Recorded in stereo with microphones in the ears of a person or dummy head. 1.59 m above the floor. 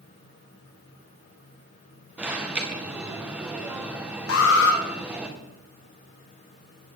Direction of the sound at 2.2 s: 10° right (ahead or behind).